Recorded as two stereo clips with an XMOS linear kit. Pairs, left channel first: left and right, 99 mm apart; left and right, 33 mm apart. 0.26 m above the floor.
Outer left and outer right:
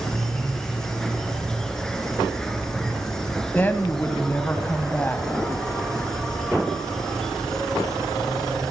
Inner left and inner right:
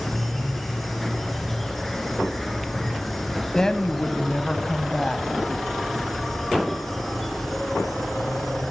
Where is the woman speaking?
20° left (ahead or behind), 2 m.